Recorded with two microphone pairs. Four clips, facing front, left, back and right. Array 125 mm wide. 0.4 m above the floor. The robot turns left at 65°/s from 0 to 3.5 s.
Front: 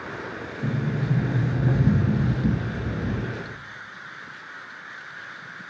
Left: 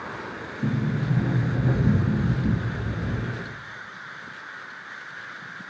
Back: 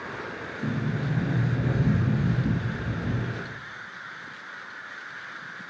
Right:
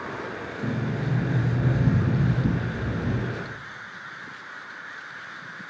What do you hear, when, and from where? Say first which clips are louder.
0.6 s a sliding door: left 3 dB, front 2 dB; 90° left, 0.6 m; by 3.3 s 85° right, 0.6 m